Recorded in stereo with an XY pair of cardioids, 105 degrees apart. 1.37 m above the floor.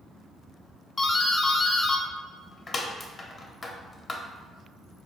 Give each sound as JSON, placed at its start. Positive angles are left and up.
{"t": 1.0, "sound": "a doorbell", "azimuth_deg": 30, "distance_m": 0.5}